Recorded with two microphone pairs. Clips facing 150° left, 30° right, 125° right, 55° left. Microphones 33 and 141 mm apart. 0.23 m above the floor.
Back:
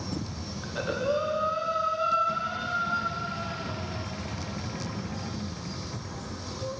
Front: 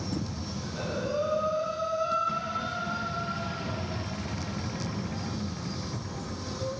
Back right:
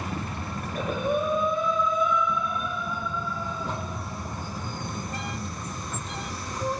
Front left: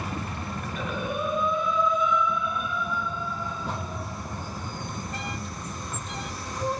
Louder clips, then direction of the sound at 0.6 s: Back 5 dB, back right 5 dB; 165° right.